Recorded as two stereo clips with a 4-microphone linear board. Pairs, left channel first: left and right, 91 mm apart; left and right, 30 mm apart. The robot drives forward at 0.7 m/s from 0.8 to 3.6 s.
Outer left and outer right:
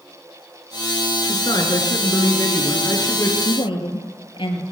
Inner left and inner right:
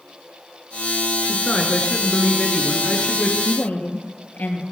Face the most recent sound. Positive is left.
turn(degrees=75)  # may be behind; listen again after turning